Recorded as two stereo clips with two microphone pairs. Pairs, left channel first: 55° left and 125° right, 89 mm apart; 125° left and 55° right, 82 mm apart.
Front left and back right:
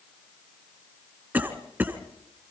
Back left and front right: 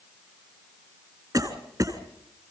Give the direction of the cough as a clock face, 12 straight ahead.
2 o'clock.